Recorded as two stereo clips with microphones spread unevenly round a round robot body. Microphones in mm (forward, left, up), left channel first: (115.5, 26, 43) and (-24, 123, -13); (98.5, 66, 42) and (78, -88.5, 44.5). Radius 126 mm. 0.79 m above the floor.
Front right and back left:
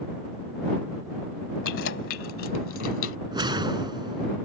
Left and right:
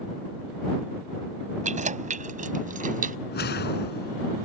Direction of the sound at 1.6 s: 60° right.